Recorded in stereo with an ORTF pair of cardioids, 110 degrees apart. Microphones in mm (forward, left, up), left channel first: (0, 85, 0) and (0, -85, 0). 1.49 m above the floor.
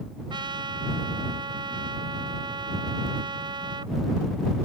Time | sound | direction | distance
0.3 | a trumpet | 25° right | ?